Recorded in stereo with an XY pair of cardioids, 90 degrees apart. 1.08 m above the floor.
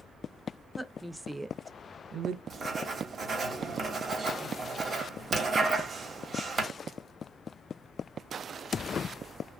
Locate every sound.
0.8 s a woman speaking: 5° left, 0.8 m; by 2.4 s 80° right, 0.5 m
2.5 s writing: 45° right, 1.3 m